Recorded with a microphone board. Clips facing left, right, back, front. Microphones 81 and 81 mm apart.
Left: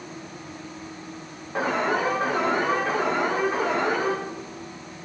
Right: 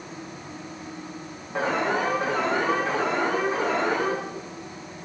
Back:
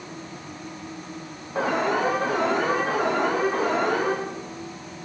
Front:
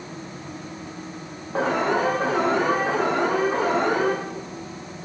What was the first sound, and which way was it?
An alarm, 5° left.